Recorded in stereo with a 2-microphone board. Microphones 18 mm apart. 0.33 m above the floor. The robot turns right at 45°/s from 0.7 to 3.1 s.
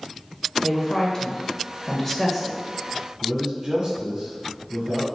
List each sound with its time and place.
0.6 s a woman speaking: 30° left (ahead or behind), 1.0 m; by 2.6 s centre (ahead or behind), 1.0 m
3.2 s a man speaking: 35° right (ahead or behind), 1.5 m